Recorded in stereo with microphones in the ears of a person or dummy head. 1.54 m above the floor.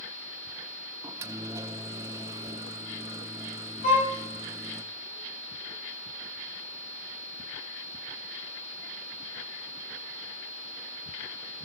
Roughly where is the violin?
Left.